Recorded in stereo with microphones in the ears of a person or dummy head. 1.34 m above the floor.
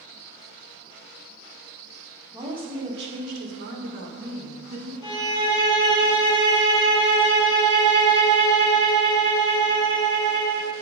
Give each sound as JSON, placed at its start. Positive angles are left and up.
{"t": 2.3, "sound": "a woman speaking", "side_deg": -20, "distance_m": 1.8}
{"t": 5.0, "sound": "a violin", "side_deg": 30, "distance_m": 2.0}